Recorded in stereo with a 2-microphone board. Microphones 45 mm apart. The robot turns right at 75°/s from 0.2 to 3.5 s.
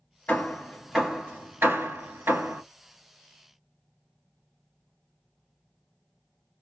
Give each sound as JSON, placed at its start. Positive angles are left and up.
{"t": 0.3, "sound": "hammering", "side_deg": 35, "distance_m": 2.5}